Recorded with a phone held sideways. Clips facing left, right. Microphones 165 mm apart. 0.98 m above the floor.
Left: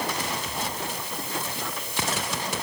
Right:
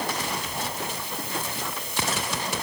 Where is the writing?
I don't hear writing.